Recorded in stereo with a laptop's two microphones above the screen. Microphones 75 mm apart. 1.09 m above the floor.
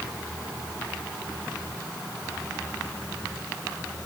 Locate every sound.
Only background noise.